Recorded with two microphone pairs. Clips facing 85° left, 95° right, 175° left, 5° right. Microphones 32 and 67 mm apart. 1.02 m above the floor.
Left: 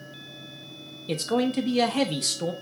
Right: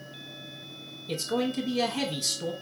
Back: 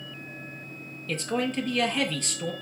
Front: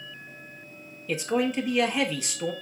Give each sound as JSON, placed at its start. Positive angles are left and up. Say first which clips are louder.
{"t": 1.1, "sound": "a man speaking", "louder": "left 4 dB, front 3 dB", "azimuth_deg": 75, "distance_m": 0.9}